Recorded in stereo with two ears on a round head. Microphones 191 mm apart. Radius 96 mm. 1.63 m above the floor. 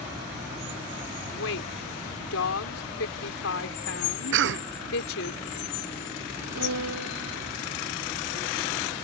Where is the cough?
60° right (ahead or behind).